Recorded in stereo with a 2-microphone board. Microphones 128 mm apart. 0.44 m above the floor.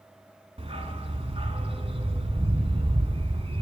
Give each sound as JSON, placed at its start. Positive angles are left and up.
{"t": 0.6, "sound": "a dog barking", "side_deg": -45, "distance_m": 1.1}